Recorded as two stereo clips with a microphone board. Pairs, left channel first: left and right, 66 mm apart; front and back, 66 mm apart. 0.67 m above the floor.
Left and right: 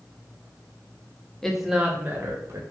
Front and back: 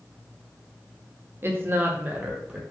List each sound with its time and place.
1.4 s a woman speaking: 170° left, 0.6 m; by 2.6 s 105° right, 0.8 m